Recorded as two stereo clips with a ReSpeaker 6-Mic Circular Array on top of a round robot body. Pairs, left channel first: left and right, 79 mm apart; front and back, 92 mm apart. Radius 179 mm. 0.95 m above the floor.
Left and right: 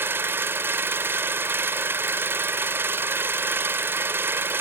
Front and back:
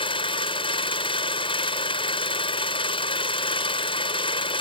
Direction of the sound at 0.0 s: 25° right.